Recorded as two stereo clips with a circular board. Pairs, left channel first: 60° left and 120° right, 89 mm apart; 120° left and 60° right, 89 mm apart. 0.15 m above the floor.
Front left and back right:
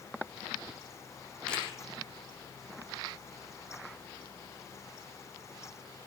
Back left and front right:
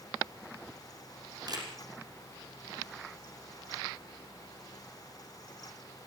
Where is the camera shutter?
20° right, 5.5 m.